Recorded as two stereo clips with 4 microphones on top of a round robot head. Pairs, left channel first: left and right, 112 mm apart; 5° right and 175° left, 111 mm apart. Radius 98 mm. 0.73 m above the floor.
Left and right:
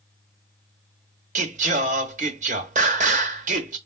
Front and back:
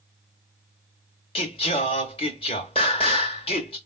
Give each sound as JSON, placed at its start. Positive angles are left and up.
{"t": 1.4, "sound": "singing", "azimuth_deg": -65, "distance_m": 0.7}